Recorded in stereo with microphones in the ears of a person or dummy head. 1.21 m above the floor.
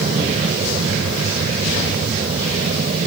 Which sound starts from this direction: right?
An aircraft, at 0.0 s.